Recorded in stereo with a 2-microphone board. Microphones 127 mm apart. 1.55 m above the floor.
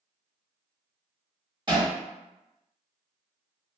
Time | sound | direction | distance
1.7 | hammering | 35° right (ahead or behind) | 1.3 m